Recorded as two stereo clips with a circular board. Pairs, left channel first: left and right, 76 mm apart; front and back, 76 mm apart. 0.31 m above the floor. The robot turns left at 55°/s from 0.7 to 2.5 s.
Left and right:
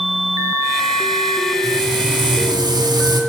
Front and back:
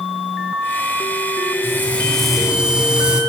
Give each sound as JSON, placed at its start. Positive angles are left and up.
{"t": 1.6, "sound": "frying", "azimuth_deg": -55, "distance_m": 2.5}